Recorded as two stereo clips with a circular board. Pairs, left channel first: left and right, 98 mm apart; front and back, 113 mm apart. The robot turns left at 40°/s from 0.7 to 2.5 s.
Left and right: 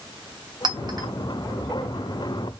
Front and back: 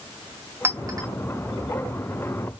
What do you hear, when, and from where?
0.6 s a clink: 115° right, 0.8 m; by 1.1 s 130° right, 0.8 m